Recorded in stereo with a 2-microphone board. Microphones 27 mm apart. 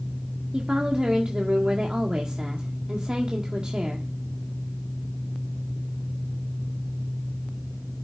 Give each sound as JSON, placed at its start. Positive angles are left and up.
{"t": 0.5, "sound": "a woman speaking", "side_deg": -30, "distance_m": 1.8}